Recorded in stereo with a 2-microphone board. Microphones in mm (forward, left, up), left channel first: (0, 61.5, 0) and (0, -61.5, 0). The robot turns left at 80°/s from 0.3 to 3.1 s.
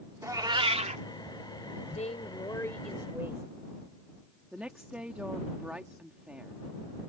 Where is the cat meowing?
25° right; by 1.0 s 85° right.